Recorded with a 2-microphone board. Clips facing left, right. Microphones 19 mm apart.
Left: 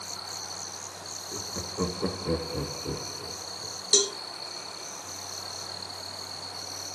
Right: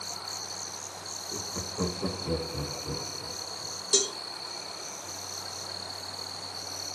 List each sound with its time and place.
1.3 s laughter: 5° right (ahead or behind), 1.3 m; by 3.8 s 65° left (ahead or behind), 2 m
3.9 s a cowbell: 30° left (ahead or behind), 1.0 m